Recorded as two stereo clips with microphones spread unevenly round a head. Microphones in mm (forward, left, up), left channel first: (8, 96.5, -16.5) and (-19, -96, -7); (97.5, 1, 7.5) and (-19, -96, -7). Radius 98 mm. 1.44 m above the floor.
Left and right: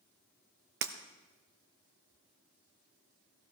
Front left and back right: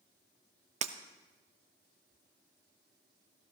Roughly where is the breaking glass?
Right.